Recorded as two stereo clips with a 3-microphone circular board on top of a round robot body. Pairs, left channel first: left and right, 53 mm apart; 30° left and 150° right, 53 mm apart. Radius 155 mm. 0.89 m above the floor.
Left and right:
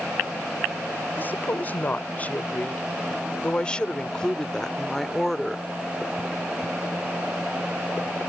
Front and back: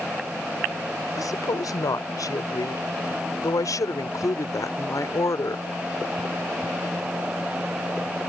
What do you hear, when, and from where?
1.2 s a woman speaking: 30° left; by 5.7 s straight ahead